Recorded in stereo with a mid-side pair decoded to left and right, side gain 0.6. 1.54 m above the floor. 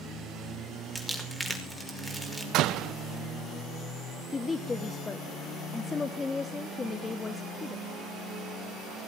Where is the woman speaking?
20° left, 1.4 m.